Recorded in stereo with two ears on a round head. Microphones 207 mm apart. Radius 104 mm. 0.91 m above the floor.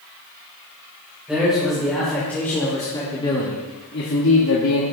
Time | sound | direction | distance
1.3 | a man speaking | 5° right (ahead or behind) | 3.5 m